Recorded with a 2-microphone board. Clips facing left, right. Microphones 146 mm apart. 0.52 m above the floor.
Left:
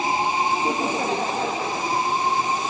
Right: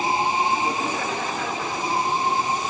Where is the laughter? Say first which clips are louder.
Left 2 dB; 20° left (ahead or behind), 0.9 m; by 2.0 s 30° left (ahead or behind), 1.5 m.